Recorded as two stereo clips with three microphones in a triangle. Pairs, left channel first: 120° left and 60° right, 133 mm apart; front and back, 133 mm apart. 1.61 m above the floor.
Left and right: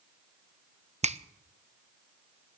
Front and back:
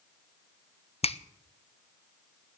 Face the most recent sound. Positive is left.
turn(degrees=-35)